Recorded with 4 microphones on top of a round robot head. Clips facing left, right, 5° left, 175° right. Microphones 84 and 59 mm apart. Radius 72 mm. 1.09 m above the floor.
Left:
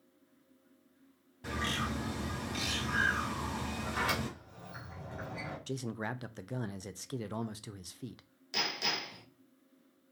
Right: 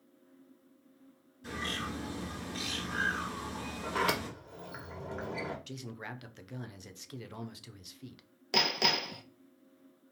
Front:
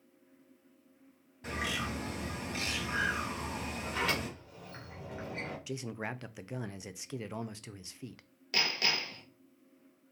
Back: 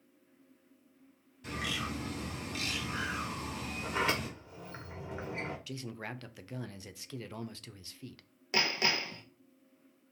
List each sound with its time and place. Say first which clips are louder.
1.4 s a bird: left 2 dB, front 1 dB; 55° left, 3 m
3.8 s a sliding door: right 4 dB, back 2 dB; 110° right, 1.3 m
5.7 s a man speaking: left 6 dB, front 3 dB; 65° left, 0.6 m
8.5 s hammering: right 6 dB, back 2 dB; 110° right, 0.8 m